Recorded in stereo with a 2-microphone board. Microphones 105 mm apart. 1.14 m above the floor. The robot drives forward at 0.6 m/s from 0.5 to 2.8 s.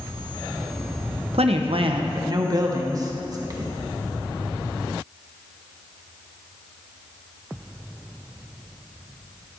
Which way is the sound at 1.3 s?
85° right.